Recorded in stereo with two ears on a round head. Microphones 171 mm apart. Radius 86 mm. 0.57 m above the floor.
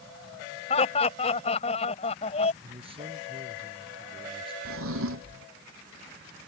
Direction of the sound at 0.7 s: 35° left (ahead or behind).